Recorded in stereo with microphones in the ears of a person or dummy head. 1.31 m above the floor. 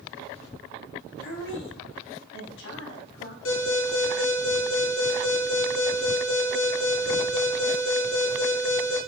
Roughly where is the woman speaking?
Left.